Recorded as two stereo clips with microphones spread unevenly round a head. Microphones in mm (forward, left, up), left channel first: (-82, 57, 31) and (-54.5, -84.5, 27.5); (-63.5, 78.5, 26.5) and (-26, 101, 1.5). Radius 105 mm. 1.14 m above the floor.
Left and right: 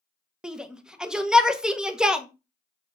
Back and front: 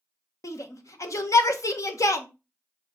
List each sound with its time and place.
0.4 s a shout: 165° right, 1.3 m